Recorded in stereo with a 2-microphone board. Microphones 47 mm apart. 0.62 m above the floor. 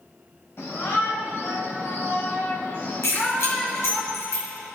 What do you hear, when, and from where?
0.6 s a shout: 65° left (ahead or behind), 4 m; by 4.0 s 20° right (ahead or behind), 1.2 m
3.0 s keys jangling: 80° left, 5.5 m